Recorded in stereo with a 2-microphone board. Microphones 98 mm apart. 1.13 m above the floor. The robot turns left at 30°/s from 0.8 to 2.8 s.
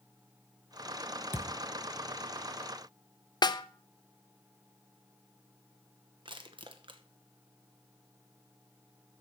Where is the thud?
20° right (ahead or behind), 1.1 m.